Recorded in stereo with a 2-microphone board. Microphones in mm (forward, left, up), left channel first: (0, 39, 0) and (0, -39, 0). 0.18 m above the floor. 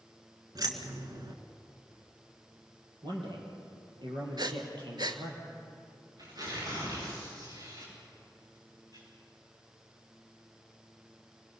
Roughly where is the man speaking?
Right.